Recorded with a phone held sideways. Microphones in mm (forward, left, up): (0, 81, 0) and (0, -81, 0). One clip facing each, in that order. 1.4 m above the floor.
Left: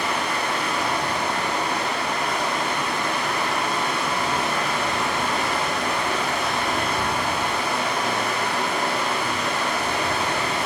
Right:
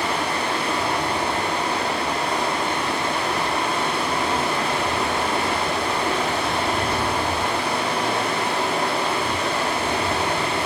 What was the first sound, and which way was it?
Running water, 30° right (ahead or behind).